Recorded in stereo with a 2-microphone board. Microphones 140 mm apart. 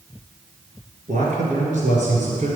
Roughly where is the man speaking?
Right.